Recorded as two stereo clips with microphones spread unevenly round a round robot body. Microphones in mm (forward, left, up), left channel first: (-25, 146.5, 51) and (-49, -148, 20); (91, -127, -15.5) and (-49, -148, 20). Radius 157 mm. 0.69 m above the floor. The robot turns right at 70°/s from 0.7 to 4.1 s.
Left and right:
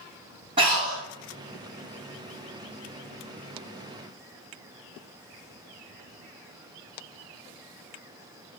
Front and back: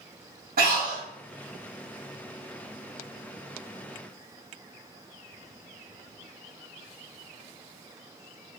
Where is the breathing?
165° right, 1.4 m; by 1.0 s 140° right, 1.4 m.